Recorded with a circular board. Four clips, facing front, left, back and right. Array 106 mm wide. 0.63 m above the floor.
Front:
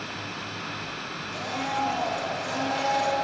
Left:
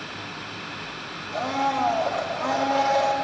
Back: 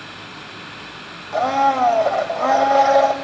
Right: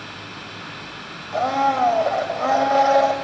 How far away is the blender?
About 1.7 m.